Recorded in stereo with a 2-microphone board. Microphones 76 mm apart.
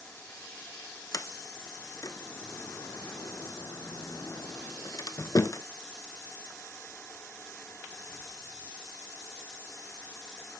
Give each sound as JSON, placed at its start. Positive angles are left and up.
{"t": 1.1, "sound": "a sliding door", "side_deg": 45, "distance_m": 0.8}